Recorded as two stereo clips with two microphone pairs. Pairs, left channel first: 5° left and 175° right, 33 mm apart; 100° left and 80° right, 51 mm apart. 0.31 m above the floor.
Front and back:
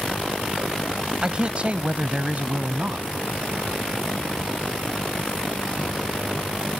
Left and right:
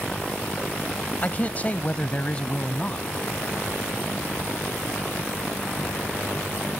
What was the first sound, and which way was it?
A man speaking, 135° left.